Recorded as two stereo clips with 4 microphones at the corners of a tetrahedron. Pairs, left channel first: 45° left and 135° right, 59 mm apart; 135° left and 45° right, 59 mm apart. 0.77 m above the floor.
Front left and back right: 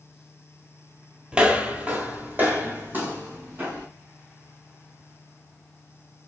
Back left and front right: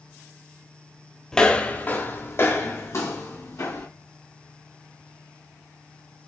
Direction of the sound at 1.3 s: 165° right.